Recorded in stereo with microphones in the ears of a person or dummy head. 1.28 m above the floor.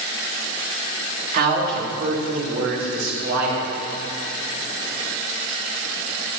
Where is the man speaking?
50° right (ahead or behind), 2 m; by 3.7 s 60° right (ahead or behind), 5 m.